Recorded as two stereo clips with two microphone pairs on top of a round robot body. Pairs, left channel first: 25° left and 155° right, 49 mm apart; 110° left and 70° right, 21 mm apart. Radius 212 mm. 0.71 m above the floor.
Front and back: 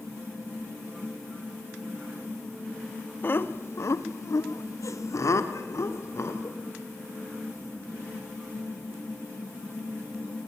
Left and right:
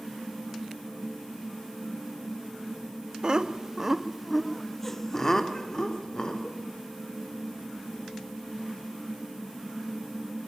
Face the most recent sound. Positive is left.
turn(degrees=55)